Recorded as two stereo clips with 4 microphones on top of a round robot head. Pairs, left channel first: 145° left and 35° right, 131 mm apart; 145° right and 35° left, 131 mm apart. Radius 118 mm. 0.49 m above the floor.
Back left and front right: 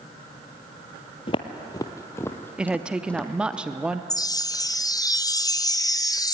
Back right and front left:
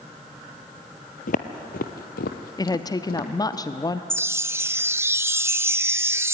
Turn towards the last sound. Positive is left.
turn(degrees=100)